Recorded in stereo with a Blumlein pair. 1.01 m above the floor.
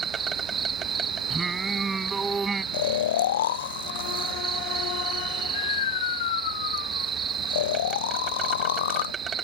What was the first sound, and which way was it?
An insect, 20° right.